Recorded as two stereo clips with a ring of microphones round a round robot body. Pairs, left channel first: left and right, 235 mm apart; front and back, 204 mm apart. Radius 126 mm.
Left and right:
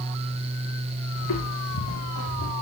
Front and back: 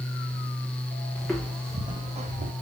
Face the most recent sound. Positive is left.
turn(degrees=135)